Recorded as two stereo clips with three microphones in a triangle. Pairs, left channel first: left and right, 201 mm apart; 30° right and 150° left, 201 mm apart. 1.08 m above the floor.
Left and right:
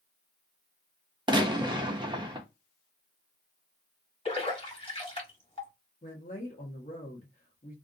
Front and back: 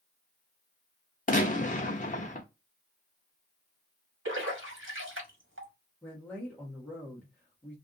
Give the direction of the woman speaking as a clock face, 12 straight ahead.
10 o'clock.